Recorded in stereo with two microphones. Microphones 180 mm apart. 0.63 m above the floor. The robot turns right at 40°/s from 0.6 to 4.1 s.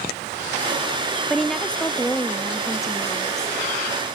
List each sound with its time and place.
1.3 s a woman speaking: centre (ahead or behind), 0.5 m; by 3.6 s 20° left (ahead or behind), 0.5 m